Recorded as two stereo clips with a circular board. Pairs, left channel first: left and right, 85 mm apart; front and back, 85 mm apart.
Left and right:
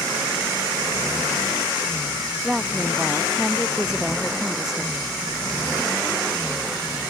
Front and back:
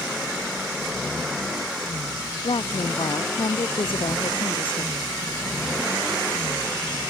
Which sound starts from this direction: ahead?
A woman speaking, at 2.4 s.